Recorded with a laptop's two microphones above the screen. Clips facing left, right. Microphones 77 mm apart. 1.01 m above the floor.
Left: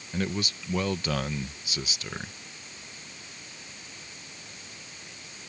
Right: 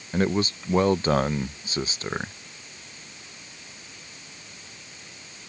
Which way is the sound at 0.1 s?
35° right (ahead or behind).